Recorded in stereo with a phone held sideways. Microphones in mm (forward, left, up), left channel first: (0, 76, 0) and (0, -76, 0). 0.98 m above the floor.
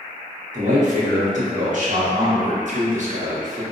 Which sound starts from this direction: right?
A man speaking, at 0.5 s.